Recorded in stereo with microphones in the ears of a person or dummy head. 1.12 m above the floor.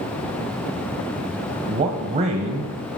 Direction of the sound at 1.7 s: 35° right (ahead or behind).